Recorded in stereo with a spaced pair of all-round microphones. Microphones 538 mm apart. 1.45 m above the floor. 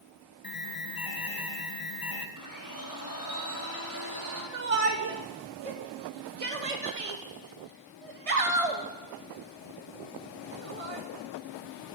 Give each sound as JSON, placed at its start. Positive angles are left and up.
{"t": 0.4, "sound": "an alarm", "side_deg": 40, "distance_m": 1.1}
{"t": 2.4, "sound": "a blender", "side_deg": -35, "distance_m": 3.5}
{"t": 4.5, "sound": "a shout", "side_deg": -80, "distance_m": 1.1}